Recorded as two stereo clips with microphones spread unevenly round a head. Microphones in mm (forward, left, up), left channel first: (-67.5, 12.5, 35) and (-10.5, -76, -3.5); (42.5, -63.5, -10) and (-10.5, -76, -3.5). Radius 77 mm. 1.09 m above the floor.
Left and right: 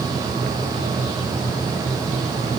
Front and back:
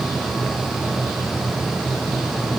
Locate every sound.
Only background noise.